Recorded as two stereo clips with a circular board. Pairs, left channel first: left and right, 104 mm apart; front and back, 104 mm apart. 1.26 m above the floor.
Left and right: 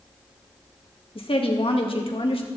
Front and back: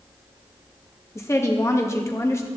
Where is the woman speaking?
65° left, 2 m.